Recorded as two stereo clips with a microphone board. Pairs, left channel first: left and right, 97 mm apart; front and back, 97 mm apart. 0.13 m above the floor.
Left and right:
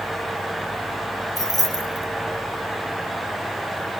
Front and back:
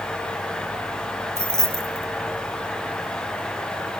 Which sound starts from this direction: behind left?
Keys jangling, at 1.4 s.